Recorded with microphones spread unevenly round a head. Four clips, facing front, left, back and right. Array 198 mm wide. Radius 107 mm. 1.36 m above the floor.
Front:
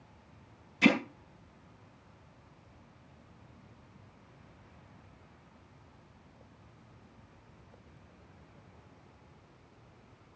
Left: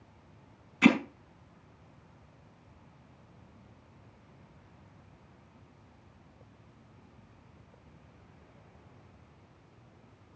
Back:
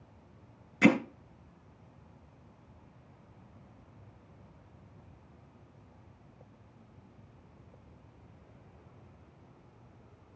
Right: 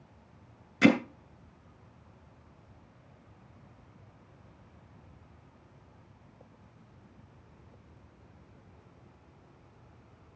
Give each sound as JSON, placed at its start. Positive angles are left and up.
{"t": 0.8, "sound": "hammering", "azimuth_deg": -125, "distance_m": 2.5}